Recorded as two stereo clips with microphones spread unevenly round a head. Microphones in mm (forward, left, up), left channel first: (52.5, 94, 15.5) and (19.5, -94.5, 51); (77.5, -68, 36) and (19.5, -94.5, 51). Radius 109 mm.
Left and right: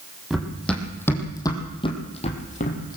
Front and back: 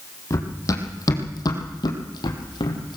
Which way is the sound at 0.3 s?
15° right.